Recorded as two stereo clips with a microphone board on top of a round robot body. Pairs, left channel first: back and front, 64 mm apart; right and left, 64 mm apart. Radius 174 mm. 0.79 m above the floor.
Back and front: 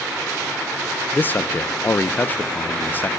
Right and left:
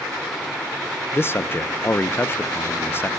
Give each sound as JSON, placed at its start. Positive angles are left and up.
{"t": 1.1, "sound": "a man speaking", "azimuth_deg": -130, "distance_m": 0.7}